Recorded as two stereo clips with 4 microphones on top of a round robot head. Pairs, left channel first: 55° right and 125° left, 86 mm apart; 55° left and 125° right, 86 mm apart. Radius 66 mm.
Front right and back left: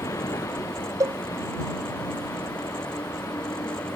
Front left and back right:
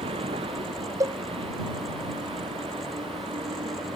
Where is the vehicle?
110° right.